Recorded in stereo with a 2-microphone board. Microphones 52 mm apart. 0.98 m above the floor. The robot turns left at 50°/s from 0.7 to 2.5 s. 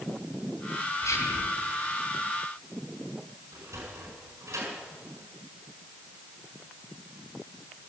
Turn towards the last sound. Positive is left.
turn(degrees=-70)  # may be behind; listen again after turning